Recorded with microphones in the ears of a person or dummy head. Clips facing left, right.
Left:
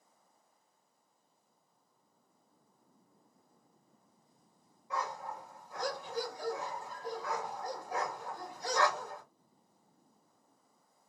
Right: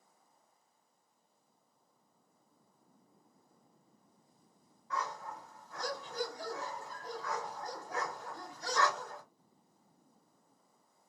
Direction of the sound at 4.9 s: 20° left (ahead or behind).